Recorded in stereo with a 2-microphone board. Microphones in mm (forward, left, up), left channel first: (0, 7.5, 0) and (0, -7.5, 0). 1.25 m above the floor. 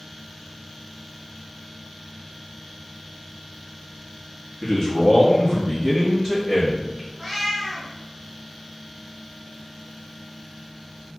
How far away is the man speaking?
About 0.8 m.